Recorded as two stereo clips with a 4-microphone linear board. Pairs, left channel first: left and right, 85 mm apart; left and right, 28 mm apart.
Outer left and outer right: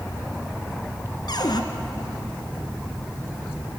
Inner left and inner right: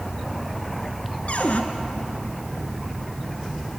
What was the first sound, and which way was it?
A cupboard door, 60° left (ahead or behind).